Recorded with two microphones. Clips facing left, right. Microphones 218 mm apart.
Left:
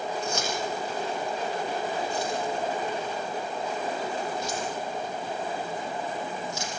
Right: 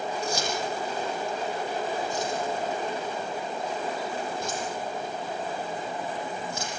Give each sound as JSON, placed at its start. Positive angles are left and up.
{"t": 0.2, "sound": "keys jangling", "side_deg": -40, "distance_m": 8.0}